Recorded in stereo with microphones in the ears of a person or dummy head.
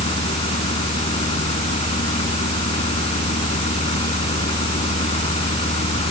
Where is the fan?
40° left (ahead or behind).